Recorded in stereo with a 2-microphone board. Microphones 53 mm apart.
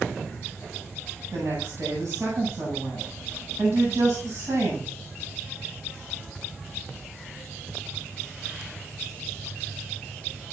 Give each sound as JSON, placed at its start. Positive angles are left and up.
{"t": 1.3, "sound": "a woman speaking", "side_deg": -85, "distance_m": 8.5}